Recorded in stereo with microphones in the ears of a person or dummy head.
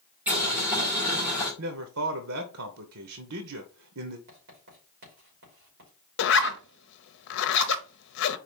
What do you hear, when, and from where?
0.3 s boiling: 5° right (ahead or behind), 1.7 m
1.6 s a man speaking: 70° right (ahead or behind), 1.0 m
4.3 s writing: 60° right (ahead or behind), 3 m
6.2 s a zipper: 65° left (ahead or behind), 0.8 m